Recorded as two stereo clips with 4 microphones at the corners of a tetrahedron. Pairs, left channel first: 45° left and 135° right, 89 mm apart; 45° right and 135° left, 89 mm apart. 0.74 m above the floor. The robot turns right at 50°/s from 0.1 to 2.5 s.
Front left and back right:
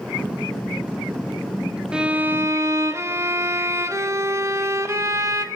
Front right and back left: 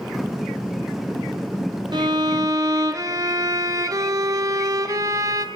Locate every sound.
1.9 s a violin: 145° left, 0.9 m; by 5.5 s 175° left, 0.9 m